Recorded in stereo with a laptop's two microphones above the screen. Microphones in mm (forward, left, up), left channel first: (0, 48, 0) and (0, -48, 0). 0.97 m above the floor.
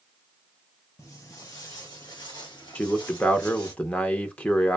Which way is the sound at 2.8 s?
15° left (ahead or behind).